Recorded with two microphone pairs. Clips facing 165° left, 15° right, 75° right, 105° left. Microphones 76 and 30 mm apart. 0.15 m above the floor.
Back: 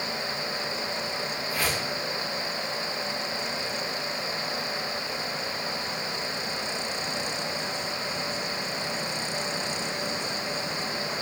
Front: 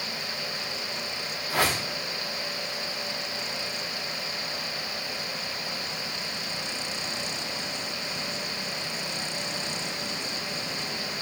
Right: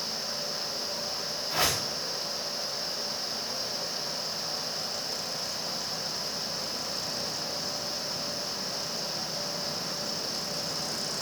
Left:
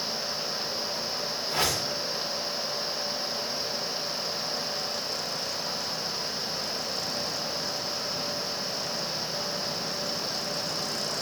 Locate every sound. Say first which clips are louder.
1.5 s a whoosh: front 5 dB, even; 15° left, 6.5 m